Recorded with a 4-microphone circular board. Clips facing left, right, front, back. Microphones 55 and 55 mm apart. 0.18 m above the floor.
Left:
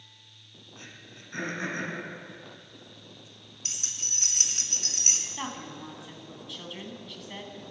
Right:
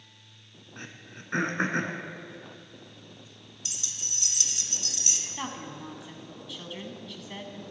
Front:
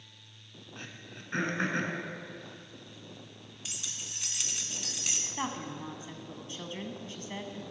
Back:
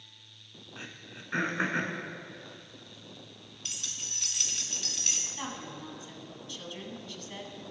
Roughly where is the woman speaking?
Ahead.